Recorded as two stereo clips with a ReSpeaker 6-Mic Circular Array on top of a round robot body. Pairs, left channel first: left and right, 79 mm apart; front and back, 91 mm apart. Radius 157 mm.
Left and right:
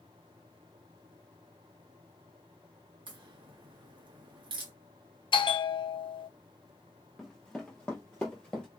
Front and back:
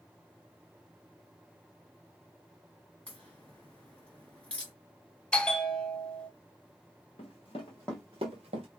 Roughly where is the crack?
Right.